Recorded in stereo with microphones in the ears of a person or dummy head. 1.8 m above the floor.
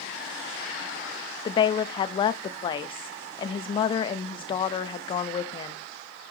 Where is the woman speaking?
30° left (ahead or behind), 0.8 m.